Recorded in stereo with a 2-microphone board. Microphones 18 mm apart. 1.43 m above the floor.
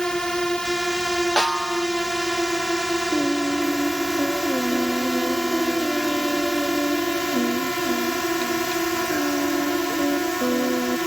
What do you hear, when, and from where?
0.0 s a drone: 35° left (ahead or behind)
1.4 s a snare drum: 50° left (ahead or behind)
3.1 s singing: 55° left (ahead or behind)